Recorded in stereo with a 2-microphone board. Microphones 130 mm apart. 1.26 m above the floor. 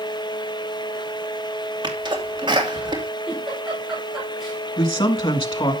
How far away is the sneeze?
About 2.5 m.